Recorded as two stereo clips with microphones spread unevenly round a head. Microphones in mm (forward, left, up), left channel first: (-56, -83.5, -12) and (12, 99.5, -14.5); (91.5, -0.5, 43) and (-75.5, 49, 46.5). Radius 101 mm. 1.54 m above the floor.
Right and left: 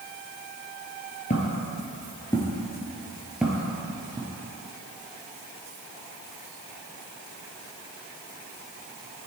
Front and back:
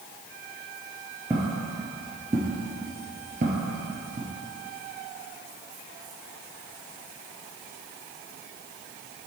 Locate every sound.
1.3 s footsteps: 125° right, 1.8 m; by 4.3 s 135° left, 2 m